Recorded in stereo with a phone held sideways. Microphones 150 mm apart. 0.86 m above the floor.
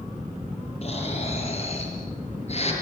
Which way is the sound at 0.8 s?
45° left (ahead or behind).